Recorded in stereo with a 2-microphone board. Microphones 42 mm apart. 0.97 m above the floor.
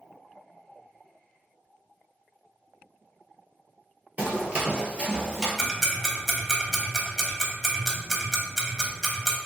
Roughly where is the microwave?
No microwave in this recording.